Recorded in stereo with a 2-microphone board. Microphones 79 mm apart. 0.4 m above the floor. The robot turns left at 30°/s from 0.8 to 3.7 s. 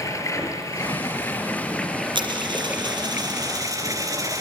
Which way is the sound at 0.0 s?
40° left.